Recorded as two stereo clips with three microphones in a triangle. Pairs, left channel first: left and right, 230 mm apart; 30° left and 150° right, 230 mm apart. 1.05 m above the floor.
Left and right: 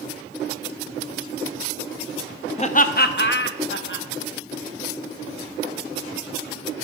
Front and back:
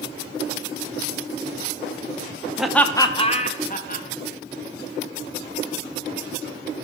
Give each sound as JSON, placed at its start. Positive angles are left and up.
{"t": 2.6, "sound": "laughter", "azimuth_deg": 125, "distance_m": 0.5}